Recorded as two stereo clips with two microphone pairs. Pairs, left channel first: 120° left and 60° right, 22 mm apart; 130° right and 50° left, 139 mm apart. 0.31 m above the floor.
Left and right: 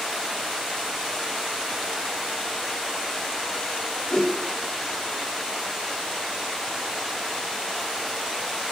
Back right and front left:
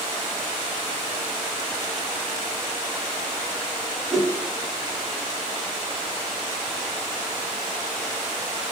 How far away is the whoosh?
About 0.8 m.